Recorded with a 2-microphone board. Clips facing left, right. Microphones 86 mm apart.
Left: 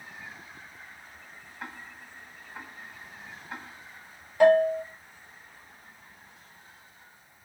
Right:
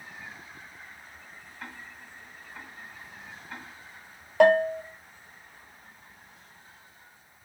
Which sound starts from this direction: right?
A bell, at 4.4 s.